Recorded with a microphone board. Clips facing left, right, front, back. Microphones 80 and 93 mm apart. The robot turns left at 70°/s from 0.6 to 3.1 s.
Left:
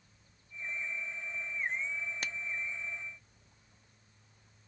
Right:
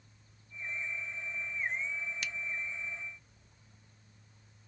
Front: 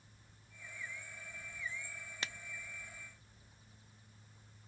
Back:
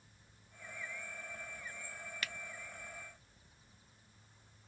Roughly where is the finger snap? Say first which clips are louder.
Left 1 dB, even; ahead left.